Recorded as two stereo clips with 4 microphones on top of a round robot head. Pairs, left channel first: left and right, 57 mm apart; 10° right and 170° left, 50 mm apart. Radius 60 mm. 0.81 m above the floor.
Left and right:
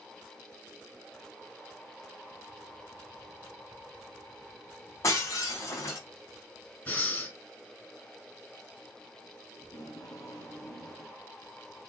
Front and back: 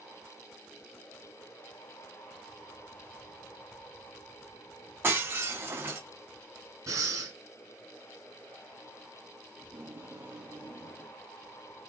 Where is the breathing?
155° left, 5 m.